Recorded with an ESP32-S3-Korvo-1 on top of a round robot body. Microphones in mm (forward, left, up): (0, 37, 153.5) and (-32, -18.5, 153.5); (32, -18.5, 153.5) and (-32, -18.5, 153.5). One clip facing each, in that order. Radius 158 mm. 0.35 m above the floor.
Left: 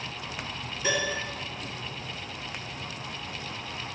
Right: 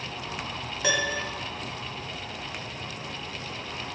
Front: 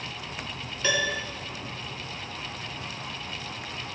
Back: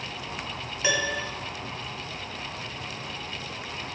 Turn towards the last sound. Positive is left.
turn(degrees=-105)